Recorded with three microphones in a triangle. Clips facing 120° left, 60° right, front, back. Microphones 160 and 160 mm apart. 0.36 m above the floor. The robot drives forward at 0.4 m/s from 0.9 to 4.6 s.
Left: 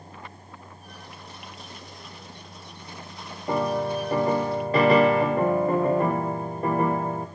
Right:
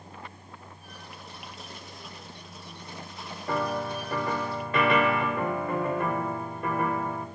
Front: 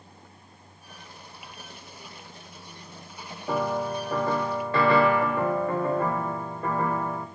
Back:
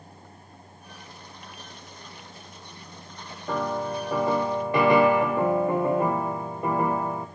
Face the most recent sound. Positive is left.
turn(degrees=120)